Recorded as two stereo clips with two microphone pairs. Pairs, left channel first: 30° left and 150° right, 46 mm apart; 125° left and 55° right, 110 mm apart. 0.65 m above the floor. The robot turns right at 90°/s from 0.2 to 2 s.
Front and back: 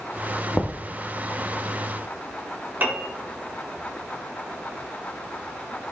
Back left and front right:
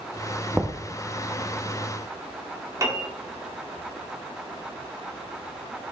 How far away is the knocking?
About 0.7 m.